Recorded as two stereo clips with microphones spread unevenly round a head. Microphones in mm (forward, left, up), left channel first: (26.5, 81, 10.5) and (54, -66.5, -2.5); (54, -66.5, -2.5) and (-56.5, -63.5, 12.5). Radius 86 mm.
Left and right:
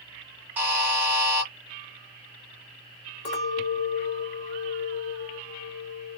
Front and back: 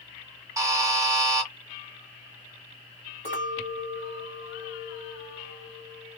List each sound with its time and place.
0.6 s a buzzer: 160° right, 1.1 m
3.2 s a clink: 140° left, 1.6 m